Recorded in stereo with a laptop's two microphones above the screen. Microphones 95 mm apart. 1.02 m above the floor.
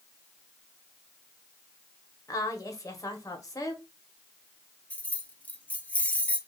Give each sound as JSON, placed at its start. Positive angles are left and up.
{"t": 2.3, "sound": "a woman speaking", "side_deg": 35, "distance_m": 0.9}
{"t": 4.9, "sound": "keys jangling", "side_deg": 15, "distance_m": 0.5}